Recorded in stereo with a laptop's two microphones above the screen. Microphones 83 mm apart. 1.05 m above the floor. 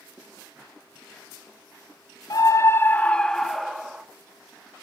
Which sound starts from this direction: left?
A scream, at 2.3 s.